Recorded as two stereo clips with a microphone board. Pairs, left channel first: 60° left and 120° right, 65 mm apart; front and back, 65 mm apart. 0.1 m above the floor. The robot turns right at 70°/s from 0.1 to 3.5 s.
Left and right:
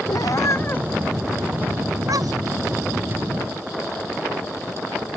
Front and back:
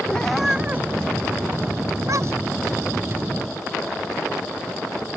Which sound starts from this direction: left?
A cat meowing, at 0.1 s.